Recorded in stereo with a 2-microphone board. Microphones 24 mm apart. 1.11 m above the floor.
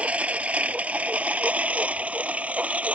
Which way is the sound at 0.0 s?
70° right (ahead or behind).